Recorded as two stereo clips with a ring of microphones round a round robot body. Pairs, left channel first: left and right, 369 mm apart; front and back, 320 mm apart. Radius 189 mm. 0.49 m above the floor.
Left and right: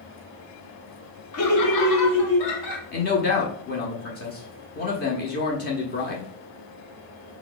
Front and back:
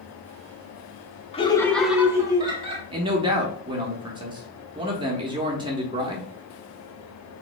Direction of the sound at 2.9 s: 120° left.